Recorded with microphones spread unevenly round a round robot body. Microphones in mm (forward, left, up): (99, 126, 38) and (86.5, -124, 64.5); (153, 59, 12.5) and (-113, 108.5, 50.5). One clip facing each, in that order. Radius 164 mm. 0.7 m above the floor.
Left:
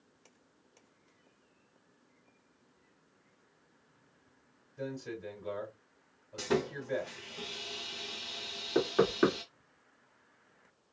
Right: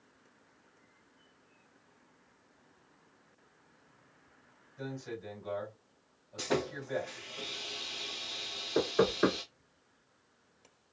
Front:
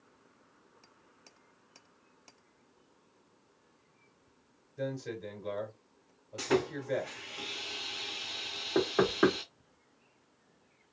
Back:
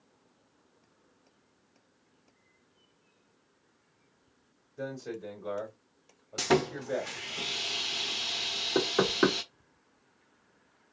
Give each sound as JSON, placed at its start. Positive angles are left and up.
{"t": 4.8, "sound": "a man speaking", "azimuth_deg": 85, "distance_m": 2.5}
{"t": 6.4, "sound": "sawing", "azimuth_deg": 150, "distance_m": 0.6}
{"t": 8.8, "sound": "knocking", "azimuth_deg": 100, "distance_m": 1.7}